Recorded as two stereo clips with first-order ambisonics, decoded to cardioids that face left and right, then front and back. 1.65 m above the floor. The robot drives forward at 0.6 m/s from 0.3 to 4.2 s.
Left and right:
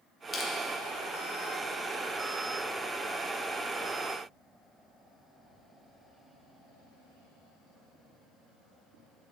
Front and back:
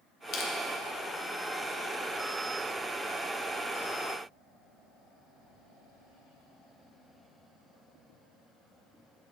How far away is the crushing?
About 1.3 m.